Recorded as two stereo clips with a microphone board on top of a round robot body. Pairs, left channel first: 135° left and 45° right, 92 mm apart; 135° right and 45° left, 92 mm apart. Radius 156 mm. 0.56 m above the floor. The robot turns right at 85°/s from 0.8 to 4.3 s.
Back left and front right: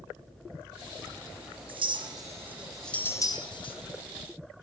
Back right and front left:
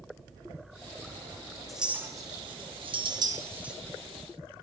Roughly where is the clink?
Ahead right.